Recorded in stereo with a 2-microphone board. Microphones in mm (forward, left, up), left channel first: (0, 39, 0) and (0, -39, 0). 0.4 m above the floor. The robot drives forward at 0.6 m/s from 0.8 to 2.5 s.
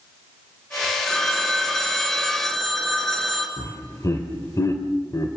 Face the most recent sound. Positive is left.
turn(degrees=45)  # may be behind; listen again after turning